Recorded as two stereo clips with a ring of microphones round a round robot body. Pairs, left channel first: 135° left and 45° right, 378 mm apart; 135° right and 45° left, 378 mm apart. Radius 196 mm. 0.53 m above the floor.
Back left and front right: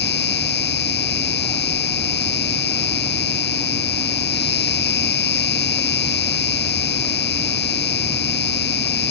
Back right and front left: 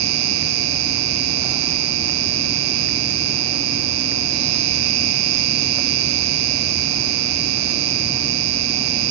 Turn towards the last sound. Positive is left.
turn(degrees=70)